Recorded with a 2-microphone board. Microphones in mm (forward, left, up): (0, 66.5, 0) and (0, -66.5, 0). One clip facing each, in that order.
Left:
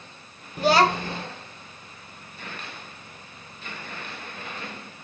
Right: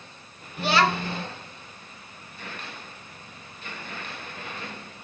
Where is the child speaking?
40° left (ahead or behind), 1.2 m.